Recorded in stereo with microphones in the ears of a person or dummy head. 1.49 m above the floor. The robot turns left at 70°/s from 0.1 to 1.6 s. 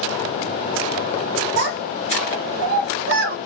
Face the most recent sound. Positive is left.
turn(degrees=-60)  # may be behind; listen again after turning